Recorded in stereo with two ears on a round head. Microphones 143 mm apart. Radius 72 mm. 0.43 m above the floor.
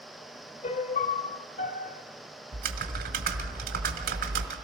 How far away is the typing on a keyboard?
About 1.8 m.